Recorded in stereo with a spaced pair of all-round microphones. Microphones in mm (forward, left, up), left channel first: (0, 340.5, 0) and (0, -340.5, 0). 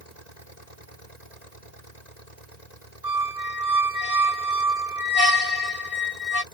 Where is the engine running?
75° left (ahead or behind).